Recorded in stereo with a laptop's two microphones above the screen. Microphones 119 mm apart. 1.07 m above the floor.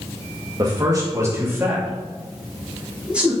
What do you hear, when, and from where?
0.6 s a man speaking: 35° right (ahead or behind), 1.6 m; by 3.3 s 10° right (ahead or behind), 3 m